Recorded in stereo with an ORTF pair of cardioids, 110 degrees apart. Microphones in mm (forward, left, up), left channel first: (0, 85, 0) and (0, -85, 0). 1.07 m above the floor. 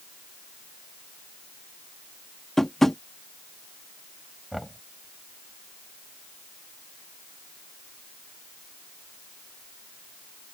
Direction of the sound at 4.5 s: Straight ahead.